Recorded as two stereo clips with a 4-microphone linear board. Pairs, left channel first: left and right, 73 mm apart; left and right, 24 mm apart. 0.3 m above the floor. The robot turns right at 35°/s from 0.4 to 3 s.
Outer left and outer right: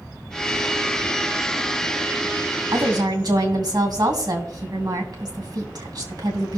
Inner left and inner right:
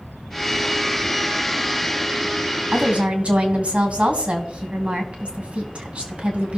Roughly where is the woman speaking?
Right.